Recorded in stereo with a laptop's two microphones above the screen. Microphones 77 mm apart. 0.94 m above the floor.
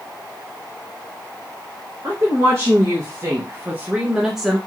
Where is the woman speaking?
40° right (ahead or behind), 1.4 m; by 4.6 s centre (ahead or behind), 1.0 m.